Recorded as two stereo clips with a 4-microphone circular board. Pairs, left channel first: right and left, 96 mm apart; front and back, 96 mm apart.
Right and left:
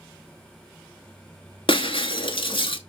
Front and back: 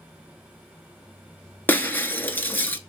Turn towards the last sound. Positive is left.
turn(degrees=-70)